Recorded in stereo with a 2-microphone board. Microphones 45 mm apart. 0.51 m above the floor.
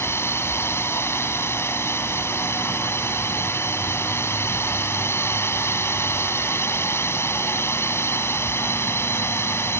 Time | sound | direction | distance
0.0 | a drone | 65° left (ahead or behind) | ?